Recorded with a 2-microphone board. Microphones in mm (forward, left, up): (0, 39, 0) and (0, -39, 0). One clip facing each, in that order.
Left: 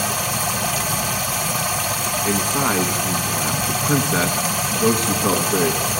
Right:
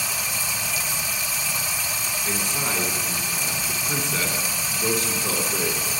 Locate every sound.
0.0 s running water: 65° left (ahead or behind), 0.9 m
2.2 s a man speaking: 45° left (ahead or behind), 1.4 m